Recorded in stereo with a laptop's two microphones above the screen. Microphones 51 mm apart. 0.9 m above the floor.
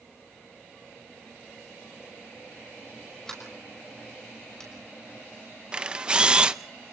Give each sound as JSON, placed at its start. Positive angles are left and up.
{"t": 3.3, "sound": "a sliding door", "side_deg": 15, "distance_m": 5.5}
{"t": 5.7, "sound": "a camera shutter", "side_deg": -20, "distance_m": 0.7}